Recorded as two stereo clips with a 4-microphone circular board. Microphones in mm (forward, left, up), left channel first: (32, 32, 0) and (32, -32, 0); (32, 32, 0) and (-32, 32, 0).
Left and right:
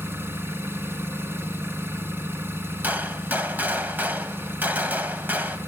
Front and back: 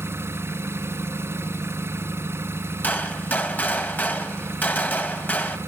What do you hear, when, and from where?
0.0 s an engine running: 140° right, 1.8 m
2.8 s a gunshot: 45° right, 1.4 m